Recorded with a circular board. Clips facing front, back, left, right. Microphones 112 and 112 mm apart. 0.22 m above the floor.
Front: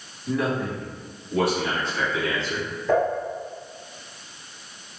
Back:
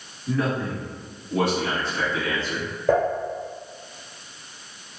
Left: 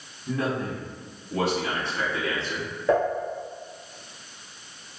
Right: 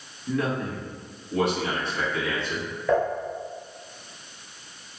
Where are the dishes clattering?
150° left, 1.9 m.